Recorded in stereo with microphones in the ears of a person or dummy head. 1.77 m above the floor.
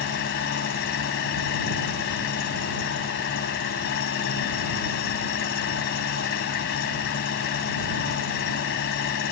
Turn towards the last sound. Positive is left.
turn(degrees=55)  # may be behind; listen again after turning